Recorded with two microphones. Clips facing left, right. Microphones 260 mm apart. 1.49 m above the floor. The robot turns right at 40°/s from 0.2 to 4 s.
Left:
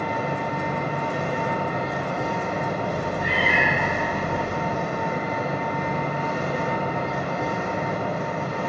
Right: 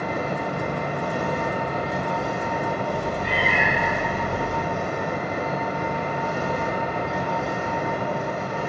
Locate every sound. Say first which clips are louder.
0.0 s an engine running: even; 105° right, 1.2 m; by 8.7 s 45° left, 1.2 m
2.8 s a cat meowing: even; 135° left, 0.7 m; by 4.6 s 175° right, 0.7 m